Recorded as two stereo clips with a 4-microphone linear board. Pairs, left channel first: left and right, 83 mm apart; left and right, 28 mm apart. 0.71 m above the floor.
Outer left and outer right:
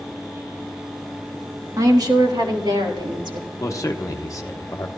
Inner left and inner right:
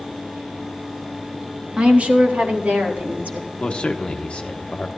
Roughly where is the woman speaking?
Right.